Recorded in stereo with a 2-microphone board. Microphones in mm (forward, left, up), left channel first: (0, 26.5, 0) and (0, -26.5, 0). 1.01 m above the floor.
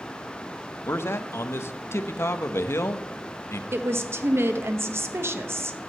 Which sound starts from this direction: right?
A woman speaking, at 3.7 s.